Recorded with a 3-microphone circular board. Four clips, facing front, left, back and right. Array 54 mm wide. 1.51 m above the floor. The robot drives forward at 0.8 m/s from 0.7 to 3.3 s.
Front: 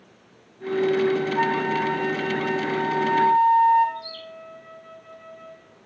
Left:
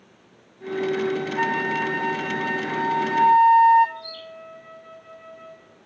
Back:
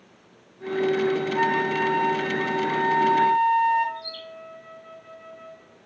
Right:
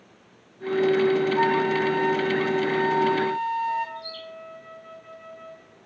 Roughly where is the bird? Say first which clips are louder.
Even, front 1 dB; behind.